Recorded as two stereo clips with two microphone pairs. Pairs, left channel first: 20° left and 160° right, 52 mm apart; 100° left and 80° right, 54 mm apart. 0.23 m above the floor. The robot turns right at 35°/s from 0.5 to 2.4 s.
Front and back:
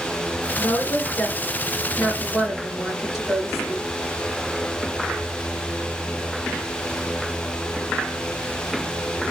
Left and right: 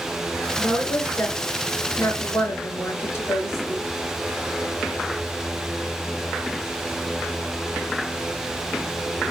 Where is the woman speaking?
55° left, 2.5 m; by 3.8 s 120° left, 2.5 m.